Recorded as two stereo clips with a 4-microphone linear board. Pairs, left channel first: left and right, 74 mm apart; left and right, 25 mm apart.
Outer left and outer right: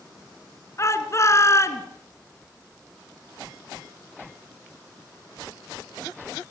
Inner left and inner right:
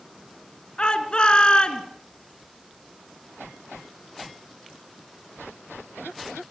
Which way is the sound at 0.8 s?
40° left (ahead or behind).